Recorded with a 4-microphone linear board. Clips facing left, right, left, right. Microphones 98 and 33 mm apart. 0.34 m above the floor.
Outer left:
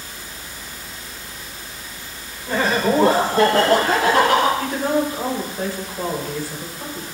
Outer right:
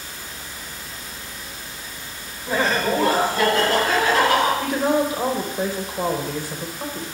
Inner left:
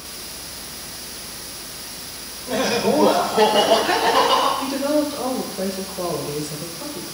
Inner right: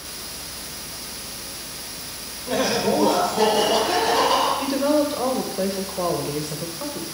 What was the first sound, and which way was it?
Laughter, 10° right (ahead or behind).